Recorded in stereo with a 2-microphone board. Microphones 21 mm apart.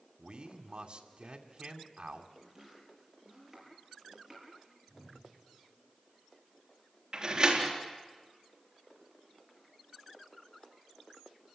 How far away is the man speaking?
About 2.5 m.